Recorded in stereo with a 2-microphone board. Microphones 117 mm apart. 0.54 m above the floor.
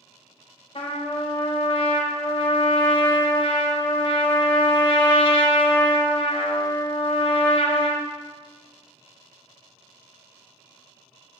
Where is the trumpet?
50° left (ahead or behind), 0.6 m.